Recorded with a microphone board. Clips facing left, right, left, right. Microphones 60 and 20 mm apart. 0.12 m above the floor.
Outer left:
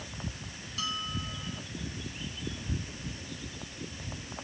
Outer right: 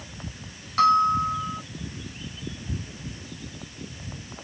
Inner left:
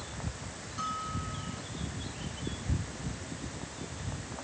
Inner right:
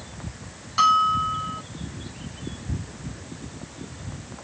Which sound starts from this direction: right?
A bell, at 0.8 s.